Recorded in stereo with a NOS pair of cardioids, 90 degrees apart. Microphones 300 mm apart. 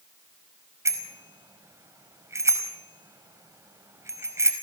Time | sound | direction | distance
0.8 | a bicycle bell | 10° right | 4.5 m